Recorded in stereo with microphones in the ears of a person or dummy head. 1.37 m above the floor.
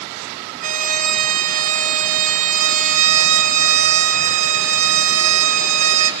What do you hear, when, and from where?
0.6 s a violin: 40° right (ahead or behind), 1.4 m